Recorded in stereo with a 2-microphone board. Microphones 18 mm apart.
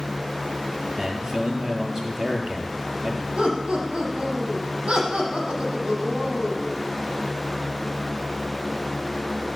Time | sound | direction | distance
1.0 | a man speaking | 30° right (ahead or behind) | 5 m
3.4 | laughter | 70° right (ahead or behind) | 7.5 m